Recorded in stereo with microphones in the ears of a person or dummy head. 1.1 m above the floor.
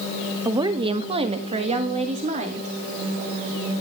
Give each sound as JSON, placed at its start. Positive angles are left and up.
{"t": 0.5, "sound": "a woman speaking", "side_deg": -15, "distance_m": 0.7}